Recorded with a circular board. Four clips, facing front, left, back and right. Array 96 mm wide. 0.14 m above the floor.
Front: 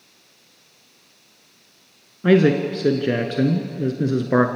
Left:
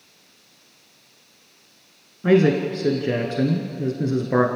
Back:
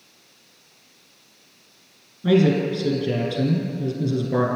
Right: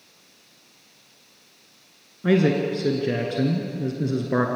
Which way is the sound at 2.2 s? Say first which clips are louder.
Left 3 dB, front 2 dB; 5° left.